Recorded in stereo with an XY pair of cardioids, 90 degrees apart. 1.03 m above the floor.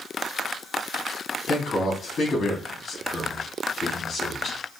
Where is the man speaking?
55° left, 3 m.